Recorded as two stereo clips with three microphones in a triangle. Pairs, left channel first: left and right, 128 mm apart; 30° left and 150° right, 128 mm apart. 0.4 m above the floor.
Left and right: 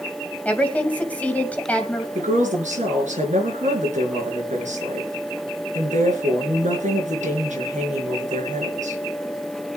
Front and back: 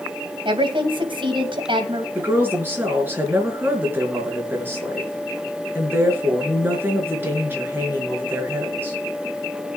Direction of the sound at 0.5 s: 170° left.